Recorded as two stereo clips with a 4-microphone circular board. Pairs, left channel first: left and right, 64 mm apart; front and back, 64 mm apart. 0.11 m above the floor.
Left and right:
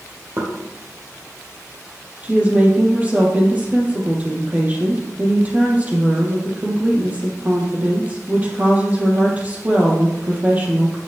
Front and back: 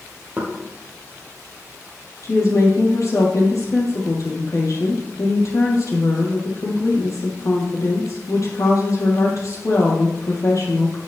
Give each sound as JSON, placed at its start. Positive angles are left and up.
{"t": 0.4, "sound": "knocking", "azimuth_deg": -120, "distance_m": 3.5}
{"t": 2.2, "sound": "a woman speaking", "azimuth_deg": -25, "distance_m": 4.0}